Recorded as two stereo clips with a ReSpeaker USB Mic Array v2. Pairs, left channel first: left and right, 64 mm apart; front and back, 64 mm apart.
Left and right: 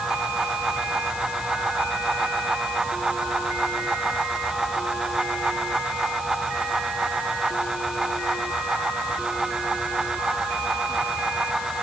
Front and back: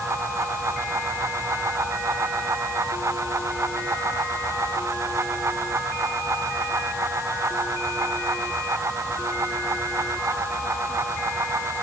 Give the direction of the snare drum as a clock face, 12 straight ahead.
I don't hear a snare drum.